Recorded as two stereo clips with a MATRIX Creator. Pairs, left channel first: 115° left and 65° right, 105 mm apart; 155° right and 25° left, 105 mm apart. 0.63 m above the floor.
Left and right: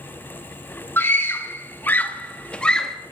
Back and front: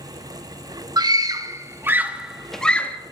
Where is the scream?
50° left, 1.3 m; by 3.0 s 170° right, 0.9 m.